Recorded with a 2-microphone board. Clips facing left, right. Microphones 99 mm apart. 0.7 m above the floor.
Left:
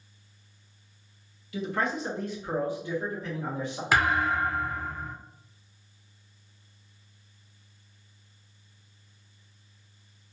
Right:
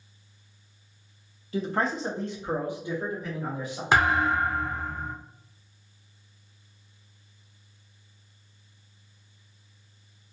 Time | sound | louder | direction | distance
1.5 | a man speaking | right 2 dB | 35° right (ahead or behind) | 0.6 m
3.9 | a thud | right 2 dB | 25° right (ahead or behind) | 0.5 m